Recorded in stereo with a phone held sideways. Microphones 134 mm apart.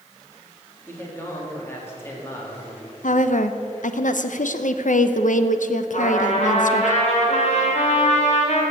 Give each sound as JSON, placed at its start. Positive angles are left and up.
{"t": 0.9, "sound": "a man speaking", "side_deg": 15, "distance_m": 3.0}
{"t": 3.0, "sound": "a woman speaking", "side_deg": 75, "distance_m": 0.7}
{"t": 5.9, "sound": "a trumpet", "side_deg": 55, "distance_m": 3.0}